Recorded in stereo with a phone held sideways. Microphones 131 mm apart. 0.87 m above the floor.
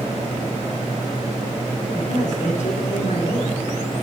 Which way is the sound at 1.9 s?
80° left.